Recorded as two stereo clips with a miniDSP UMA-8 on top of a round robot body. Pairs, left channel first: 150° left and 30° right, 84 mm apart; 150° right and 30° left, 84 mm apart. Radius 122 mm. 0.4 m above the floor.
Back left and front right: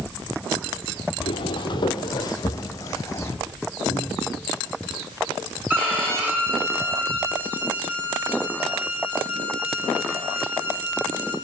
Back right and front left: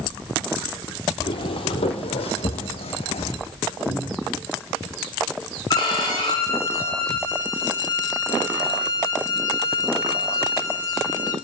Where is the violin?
100° right, 6.5 m.